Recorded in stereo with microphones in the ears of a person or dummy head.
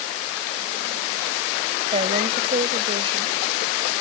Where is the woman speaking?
35° right (ahead or behind).